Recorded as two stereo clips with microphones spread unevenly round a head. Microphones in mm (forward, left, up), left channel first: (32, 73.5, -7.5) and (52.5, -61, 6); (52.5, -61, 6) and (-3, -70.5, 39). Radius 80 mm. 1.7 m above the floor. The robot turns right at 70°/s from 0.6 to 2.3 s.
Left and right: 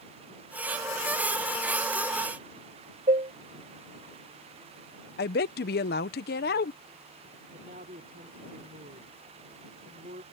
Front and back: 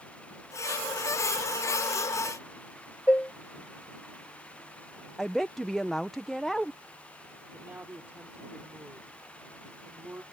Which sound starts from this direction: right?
Dishes clattering, at 3.1 s.